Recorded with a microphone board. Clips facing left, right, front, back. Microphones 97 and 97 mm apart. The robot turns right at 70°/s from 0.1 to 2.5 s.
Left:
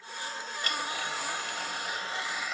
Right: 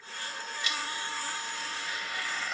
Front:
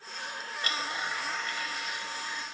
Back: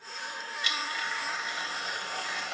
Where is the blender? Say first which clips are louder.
Left 3 dB, front 1 dB; 45° left; by 2.5 s straight behind.